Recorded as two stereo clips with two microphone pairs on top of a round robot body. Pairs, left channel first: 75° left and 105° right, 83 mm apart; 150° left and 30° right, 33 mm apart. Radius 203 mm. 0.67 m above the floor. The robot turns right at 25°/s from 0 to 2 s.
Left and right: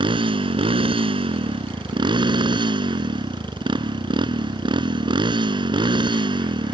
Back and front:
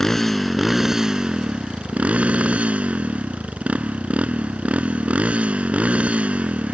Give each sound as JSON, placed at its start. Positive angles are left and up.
{"t": 0.0, "sound": "a motorcycle", "azimuth_deg": -130}